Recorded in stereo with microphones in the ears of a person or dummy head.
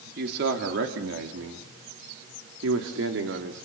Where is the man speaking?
60° right (ahead or behind), 3 m.